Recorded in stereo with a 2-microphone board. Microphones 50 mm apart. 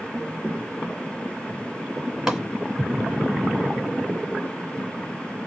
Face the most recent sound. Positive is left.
turn(degrees=-10)  # may be behind; listen again after turning